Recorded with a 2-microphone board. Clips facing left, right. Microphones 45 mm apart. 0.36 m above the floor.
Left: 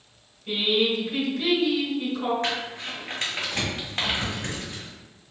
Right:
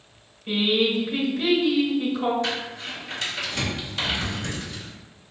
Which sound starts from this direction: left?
Crumpling, at 2.4 s.